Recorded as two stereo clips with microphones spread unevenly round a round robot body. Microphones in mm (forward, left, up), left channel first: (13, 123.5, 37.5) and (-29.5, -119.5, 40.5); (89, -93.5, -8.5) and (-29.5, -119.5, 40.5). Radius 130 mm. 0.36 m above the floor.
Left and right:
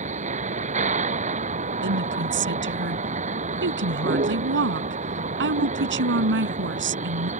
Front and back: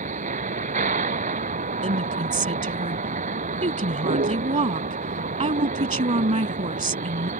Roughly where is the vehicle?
Behind.